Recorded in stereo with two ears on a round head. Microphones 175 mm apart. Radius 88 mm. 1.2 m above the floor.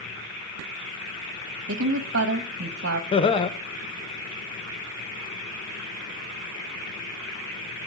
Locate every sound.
1.7 s a woman speaking: 65° right (ahead or behind), 1.1 m
3.1 s laughter: 25° left (ahead or behind), 0.6 m